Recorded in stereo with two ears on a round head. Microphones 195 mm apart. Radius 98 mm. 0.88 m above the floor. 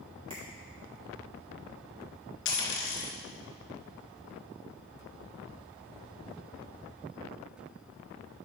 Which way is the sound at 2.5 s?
60° left (ahead or behind).